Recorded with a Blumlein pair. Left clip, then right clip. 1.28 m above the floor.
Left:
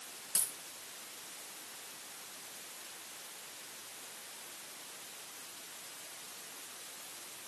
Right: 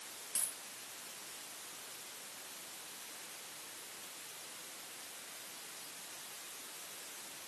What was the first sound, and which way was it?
A dropped coin, 65° left.